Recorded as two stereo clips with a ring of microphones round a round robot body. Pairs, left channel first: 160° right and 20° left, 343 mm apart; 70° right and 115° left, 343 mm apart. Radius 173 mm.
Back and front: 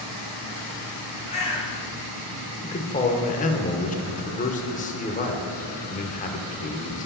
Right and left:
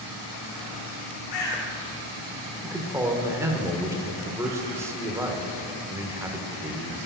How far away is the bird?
About 3 m.